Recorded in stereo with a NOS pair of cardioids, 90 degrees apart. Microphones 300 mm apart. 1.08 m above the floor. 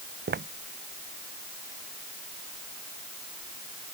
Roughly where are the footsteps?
Ahead right.